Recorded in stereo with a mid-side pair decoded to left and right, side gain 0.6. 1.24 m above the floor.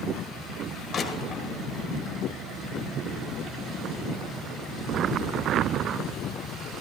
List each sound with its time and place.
0.9 s crushing: 45° left, 1.5 m